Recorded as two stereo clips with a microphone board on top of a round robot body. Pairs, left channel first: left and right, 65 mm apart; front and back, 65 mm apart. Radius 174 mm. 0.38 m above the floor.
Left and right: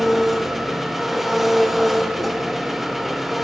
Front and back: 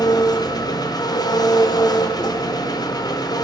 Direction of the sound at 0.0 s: Straight ahead.